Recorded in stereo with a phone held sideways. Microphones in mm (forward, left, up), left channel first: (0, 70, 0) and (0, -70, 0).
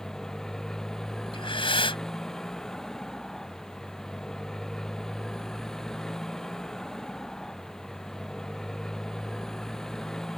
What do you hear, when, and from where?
0.0 s a motorcycle: 5° left (ahead or behind)
1.3 s breathing: 40° left (ahead or behind)